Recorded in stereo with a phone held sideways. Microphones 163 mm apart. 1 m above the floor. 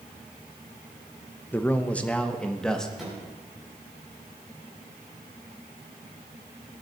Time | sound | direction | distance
1.5 | a man speaking | 10° left (ahead or behind) | 0.8 m
3.0 | a microwave | centre (ahead or behind) | 5.5 m